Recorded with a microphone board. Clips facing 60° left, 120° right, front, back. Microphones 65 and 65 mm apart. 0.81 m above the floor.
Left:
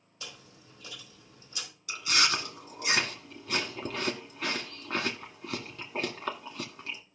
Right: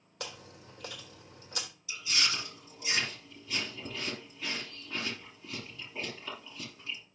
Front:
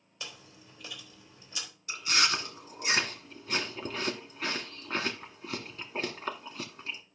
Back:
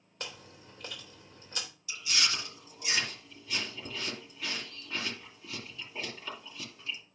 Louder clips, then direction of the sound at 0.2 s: Right 4 dB, back 2 dB; 140° right.